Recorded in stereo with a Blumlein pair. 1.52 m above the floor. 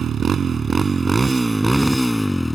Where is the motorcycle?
25° right; by 2.5 s 5° left.